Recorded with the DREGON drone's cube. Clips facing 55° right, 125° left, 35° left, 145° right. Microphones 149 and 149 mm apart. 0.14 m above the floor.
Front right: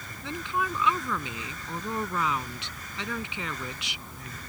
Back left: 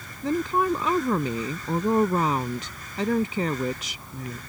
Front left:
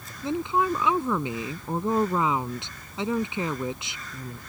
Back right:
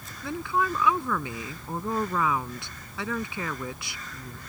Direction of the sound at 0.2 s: 95° left.